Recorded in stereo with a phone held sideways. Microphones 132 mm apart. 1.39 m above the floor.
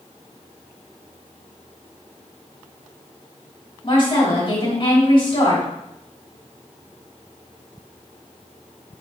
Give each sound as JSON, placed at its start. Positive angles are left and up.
{"t": 3.8, "sound": "a woman speaking", "side_deg": 40, "distance_m": 3.0}